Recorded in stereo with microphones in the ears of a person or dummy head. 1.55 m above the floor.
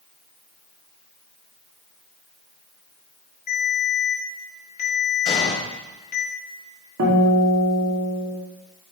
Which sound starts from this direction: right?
A guitar, at 7.0 s.